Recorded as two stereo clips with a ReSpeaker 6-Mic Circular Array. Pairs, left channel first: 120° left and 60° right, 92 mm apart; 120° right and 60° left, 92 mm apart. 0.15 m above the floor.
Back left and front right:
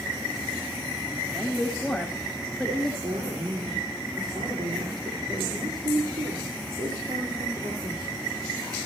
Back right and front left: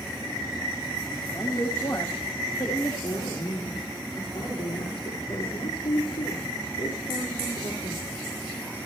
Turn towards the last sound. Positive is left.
turn(degrees=-95)